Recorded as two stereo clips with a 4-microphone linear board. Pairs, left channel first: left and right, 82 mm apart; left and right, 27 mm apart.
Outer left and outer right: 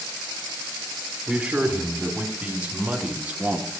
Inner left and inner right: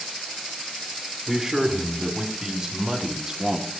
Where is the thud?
No thud in this recording.